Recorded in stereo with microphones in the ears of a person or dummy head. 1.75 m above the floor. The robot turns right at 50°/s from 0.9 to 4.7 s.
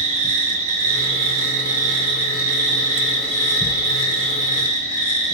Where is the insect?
30° right (ahead or behind), 1.5 m; by 5.3 s 30° left (ahead or behind), 1.5 m.